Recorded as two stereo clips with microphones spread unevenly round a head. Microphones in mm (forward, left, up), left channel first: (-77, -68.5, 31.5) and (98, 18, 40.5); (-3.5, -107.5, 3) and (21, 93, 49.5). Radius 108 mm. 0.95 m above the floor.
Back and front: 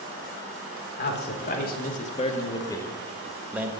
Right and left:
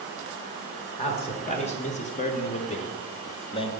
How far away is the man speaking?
About 1.4 m.